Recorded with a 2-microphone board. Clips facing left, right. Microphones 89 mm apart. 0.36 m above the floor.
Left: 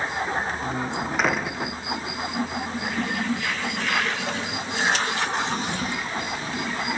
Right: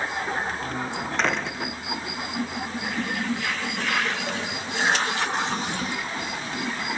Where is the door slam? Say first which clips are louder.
Left 2 dB; 5° left (ahead or behind).